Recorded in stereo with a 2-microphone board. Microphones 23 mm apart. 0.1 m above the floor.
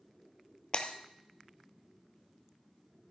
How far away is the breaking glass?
About 1.3 m.